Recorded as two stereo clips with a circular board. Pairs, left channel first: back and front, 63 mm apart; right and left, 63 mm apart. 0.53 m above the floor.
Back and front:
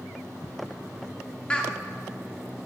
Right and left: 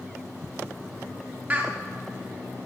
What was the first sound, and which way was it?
Laughter, 125° left.